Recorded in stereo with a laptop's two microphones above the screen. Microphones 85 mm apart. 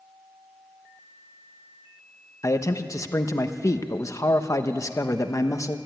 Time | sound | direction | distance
2.4 | a man speaking | 40° left (ahead or behind) | 0.9 m